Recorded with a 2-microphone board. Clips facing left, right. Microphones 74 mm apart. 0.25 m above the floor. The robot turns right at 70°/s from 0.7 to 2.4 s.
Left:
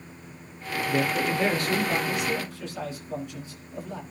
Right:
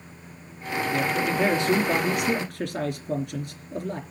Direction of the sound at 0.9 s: 155° left.